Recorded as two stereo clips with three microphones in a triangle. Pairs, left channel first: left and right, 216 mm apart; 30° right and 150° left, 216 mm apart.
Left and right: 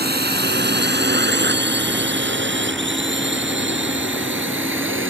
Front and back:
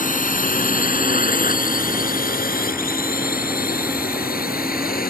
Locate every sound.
0.0 s a drone: 70° right; by 5.1 s 75° right